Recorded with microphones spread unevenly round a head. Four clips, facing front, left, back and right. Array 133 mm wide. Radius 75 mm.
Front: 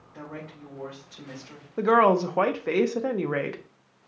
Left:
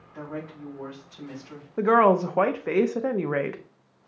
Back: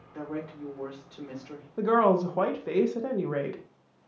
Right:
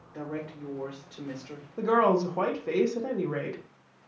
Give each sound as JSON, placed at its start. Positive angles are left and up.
{"t": 0.1, "sound": "a woman speaking", "azimuth_deg": -125, "distance_m": 3.0}
{"t": 1.8, "sound": "a woman speaking", "azimuth_deg": 40, "distance_m": 0.6}